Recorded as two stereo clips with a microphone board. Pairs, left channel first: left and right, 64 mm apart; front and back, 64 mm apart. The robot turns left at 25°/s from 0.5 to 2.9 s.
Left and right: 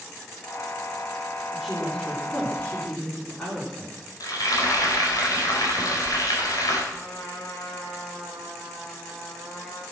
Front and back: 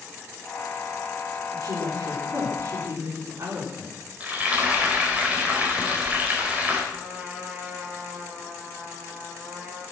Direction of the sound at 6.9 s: 100° left.